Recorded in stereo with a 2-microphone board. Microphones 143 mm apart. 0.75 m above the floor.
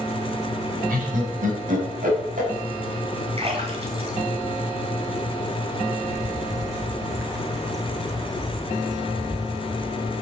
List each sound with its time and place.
0.9 s laughter: 80° right, 5 m; by 2.5 s 75° right (ahead or behind), 5.5 m
3.4 s a splash: 45° right (ahead or behind), 3 m
6.0 s a bird: 25° right (ahead or behind), 2.5 m